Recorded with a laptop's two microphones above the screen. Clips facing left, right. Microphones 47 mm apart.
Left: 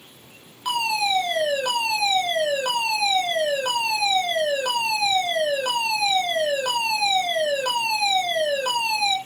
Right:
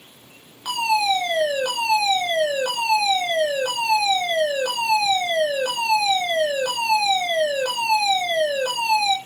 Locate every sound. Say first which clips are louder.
0.7 s a fire alarm: right 3 dB; 5° left (ahead or behind), 6.5 m